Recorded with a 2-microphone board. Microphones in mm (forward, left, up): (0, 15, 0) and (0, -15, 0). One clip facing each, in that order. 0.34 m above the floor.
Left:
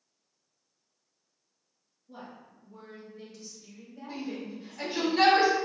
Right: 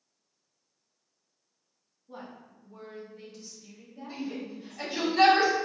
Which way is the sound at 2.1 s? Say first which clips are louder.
Right 2 dB; 35° right (ahead or behind).